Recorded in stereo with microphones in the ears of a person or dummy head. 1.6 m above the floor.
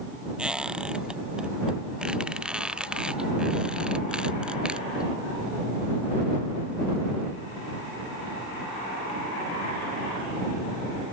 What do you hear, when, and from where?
0.4 s a squeak: 5° right (ahead or behind)